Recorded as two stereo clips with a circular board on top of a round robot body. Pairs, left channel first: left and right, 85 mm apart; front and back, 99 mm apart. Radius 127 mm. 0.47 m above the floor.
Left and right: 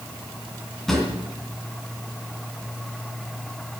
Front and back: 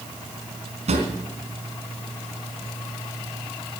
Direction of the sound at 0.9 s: 175° left.